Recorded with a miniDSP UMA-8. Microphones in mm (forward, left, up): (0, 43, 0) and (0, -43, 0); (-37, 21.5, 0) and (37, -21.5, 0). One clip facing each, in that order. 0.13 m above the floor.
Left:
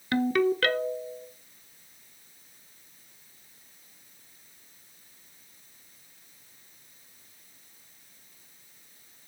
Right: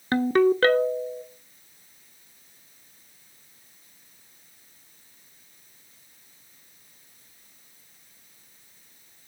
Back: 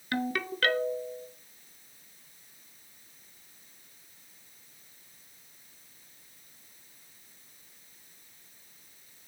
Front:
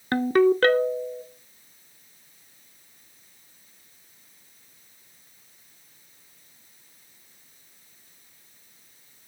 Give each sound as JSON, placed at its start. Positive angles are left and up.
{"t": 0.1, "sound": "a ringtone", "azimuth_deg": -55, "distance_m": 0.5}